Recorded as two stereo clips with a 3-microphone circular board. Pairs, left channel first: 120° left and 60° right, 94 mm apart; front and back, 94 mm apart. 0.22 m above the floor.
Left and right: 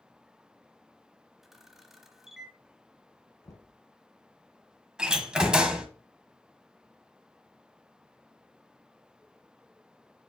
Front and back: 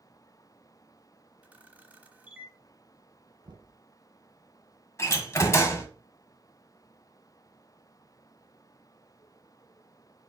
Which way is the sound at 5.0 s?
10° left.